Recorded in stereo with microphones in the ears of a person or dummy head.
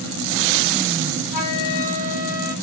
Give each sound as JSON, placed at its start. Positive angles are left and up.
{"t": 1.3, "sound": "a flute", "side_deg": 75, "distance_m": 1.2}